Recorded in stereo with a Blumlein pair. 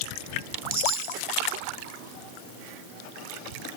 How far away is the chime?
About 2 m.